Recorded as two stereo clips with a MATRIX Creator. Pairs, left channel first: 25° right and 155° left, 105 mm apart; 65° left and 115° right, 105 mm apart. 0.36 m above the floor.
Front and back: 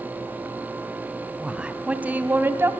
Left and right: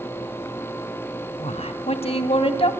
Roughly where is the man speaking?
Left.